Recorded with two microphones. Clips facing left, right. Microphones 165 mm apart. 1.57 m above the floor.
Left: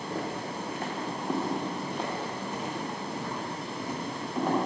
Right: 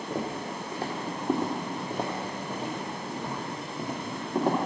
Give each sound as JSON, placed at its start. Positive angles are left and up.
{"t": 0.1, "sound": "footsteps", "side_deg": -20, "distance_m": 1.6}